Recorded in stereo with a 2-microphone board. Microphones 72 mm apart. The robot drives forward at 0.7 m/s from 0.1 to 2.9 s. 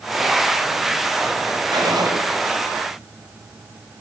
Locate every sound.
1.7 s a gunshot: 70° right (ahead or behind), 8 m